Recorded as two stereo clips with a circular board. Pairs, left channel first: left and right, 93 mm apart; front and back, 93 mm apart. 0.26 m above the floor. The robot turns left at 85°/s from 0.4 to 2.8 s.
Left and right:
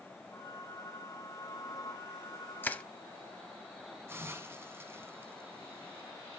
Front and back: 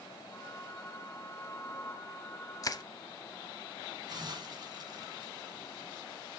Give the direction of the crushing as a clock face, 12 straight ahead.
11 o'clock.